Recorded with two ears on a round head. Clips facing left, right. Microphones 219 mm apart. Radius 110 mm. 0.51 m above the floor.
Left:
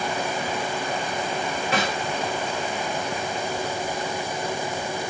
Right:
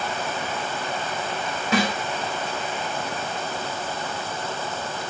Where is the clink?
I don't hear a clink.